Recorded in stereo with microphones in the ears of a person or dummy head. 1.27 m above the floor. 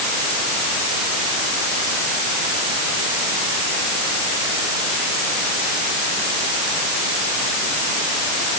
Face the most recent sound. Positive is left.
No sound to turn to.